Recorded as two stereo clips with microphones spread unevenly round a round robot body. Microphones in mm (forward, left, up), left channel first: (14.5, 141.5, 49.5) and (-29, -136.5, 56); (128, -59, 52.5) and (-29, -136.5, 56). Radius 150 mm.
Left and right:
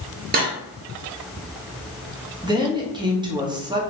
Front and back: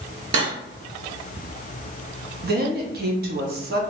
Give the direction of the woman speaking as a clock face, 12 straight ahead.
6 o'clock.